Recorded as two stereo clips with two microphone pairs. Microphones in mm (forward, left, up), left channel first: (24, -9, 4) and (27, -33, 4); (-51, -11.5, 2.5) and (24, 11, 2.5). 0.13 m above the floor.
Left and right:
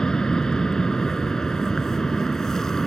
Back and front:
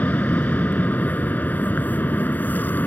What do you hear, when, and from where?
0.0 s an aircraft: 145° left; by 2.9 s 150° left